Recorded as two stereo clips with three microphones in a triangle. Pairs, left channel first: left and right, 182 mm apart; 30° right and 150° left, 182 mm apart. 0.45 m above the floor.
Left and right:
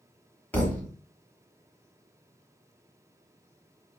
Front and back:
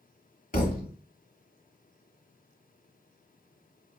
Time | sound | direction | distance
0.5 | a thud | 5° left | 1.0 m